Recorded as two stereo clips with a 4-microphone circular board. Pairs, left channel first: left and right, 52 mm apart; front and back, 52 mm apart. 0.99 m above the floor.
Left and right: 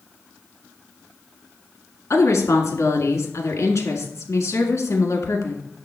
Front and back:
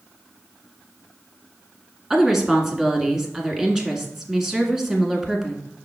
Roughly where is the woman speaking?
Left.